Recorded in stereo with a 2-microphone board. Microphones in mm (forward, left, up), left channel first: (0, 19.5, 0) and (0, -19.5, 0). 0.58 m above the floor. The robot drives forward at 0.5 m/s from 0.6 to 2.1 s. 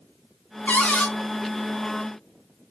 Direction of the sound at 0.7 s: 35° left (ahead or behind).